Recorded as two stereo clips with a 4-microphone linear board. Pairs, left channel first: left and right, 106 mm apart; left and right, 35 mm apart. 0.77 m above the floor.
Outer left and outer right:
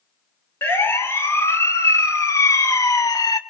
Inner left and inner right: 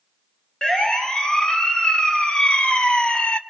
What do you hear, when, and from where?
0.6 s a siren: 25° left (ahead or behind), 3 m; by 3.4 s 35° left (ahead or behind), 1.3 m